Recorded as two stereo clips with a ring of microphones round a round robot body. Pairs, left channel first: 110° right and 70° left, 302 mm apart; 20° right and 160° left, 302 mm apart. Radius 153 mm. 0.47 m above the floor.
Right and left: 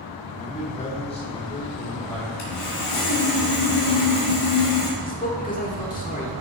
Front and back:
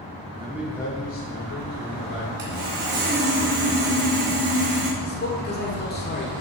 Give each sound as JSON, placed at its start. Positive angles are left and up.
{"t": 0.3, "sound": "a man speaking", "azimuth_deg": -160, "distance_m": 1.5}
{"t": 2.4, "sound": "sawing", "azimuth_deg": -145, "distance_m": 2.5}
{"t": 5.0, "sound": "a man speaking", "azimuth_deg": -60, "distance_m": 1.6}